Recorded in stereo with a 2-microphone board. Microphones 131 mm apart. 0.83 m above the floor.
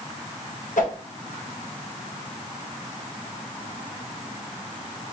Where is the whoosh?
75° left (ahead or behind), 0.9 m.